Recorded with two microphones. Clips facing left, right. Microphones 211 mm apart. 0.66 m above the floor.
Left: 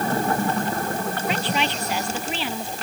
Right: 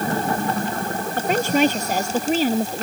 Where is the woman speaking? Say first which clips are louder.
Right 10 dB; 45° right (ahead or behind); by 2.8 s 40° right (ahead or behind).